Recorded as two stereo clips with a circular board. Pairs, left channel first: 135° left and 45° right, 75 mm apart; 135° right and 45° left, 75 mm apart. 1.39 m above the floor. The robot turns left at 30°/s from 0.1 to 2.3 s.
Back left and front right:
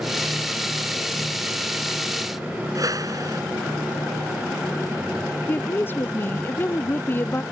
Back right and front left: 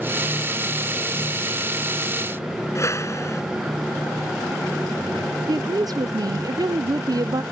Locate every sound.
2.8 s a whoosh: 85° right
5.5 s a woman speaking: 75° left